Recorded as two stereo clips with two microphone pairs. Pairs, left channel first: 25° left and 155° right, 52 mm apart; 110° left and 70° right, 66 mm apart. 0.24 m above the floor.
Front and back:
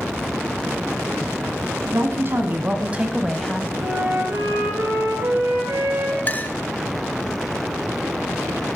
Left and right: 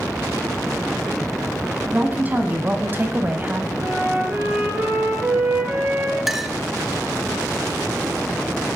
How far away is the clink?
About 0.9 m.